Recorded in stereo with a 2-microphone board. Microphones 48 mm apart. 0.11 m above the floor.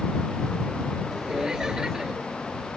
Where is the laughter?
15° right (ahead or behind).